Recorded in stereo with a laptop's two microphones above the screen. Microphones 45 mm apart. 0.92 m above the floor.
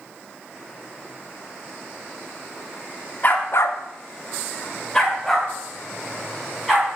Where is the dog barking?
40° left (ahead or behind), 0.8 m; by 6.9 s centre (ahead or behind), 4 m.